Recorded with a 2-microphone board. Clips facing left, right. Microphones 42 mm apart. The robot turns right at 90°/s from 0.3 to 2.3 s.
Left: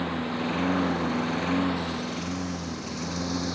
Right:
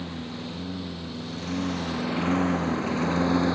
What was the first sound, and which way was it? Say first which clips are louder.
A lawn mower: left 6 dB; 40° left (ahead or behind).